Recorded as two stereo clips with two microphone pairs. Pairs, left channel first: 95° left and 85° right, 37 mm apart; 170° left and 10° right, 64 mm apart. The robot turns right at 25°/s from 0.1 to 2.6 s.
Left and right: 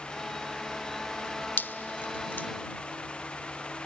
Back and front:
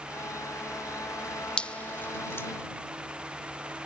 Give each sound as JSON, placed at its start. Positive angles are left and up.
{"t": 1.6, "sound": "dripping", "azimuth_deg": 95}